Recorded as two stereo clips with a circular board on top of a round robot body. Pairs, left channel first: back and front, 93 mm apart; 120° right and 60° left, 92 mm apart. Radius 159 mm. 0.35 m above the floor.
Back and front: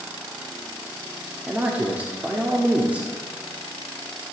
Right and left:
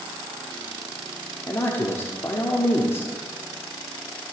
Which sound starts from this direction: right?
A man speaking, at 1.5 s.